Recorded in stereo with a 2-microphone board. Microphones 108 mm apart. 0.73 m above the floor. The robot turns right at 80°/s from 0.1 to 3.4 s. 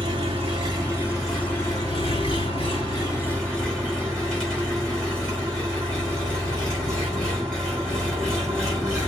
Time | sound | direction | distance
0.0 | an engine running | 95° right | 3 m